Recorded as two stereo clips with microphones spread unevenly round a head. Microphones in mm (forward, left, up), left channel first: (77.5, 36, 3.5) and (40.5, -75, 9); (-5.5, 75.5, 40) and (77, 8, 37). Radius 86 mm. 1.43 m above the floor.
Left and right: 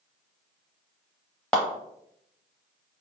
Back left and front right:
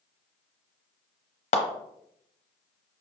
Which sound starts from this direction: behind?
A clap, at 1.5 s.